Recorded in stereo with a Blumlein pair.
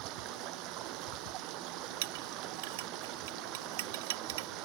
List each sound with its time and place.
0.0 s running water: 40° right
2.0 s a clink: 55° right